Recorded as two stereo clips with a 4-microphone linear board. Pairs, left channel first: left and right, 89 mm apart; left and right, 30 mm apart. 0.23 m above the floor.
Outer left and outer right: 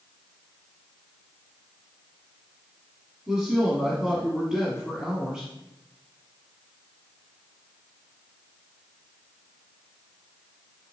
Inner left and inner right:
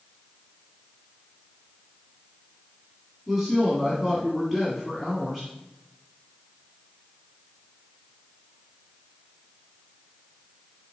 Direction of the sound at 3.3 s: 5° right (ahead or behind).